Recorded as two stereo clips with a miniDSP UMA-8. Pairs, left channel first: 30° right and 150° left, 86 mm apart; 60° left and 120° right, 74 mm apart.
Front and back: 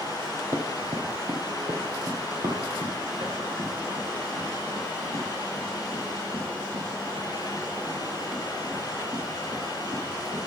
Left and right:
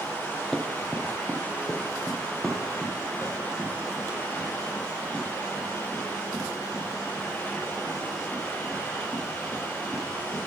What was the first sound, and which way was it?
Running footsteps, 145° left.